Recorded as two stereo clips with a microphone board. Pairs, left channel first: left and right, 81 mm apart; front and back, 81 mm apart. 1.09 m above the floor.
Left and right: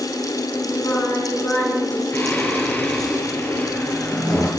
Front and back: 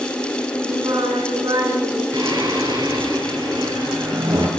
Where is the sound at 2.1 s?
155° left, 7 m.